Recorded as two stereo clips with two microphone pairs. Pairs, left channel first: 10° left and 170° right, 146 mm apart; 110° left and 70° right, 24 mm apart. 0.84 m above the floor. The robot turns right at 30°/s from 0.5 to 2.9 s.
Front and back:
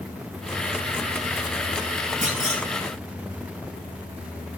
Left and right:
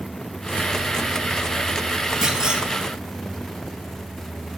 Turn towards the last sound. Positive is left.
turn(degrees=-115)